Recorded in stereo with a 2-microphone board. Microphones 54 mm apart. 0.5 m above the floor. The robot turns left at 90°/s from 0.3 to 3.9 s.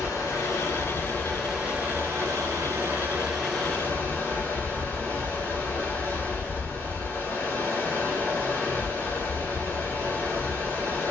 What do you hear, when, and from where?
0.0 s running water: 110° left, 1.8 m; by 11.1 s 145° left, 1.8 m